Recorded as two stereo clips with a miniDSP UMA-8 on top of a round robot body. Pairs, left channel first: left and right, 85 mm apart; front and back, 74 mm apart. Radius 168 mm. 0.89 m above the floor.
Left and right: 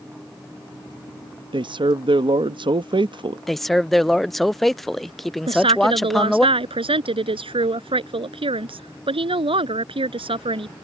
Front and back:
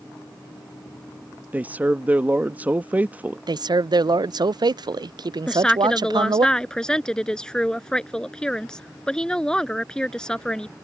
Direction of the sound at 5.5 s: 80° right.